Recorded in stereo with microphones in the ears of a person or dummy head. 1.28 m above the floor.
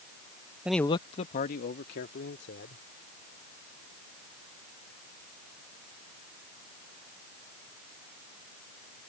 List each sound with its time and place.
0.7 s a man speaking: 5° right (ahead or behind); by 2.8 s 70° left (ahead or behind)